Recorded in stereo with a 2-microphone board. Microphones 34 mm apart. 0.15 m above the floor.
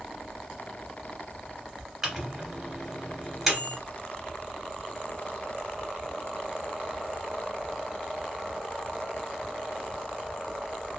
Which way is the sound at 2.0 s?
5° right (ahead or behind).